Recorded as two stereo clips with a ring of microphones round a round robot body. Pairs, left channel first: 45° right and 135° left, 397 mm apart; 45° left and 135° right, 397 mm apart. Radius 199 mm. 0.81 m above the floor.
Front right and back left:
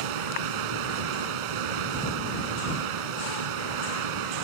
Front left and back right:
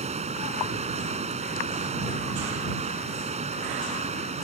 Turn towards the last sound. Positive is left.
turn(degrees=150)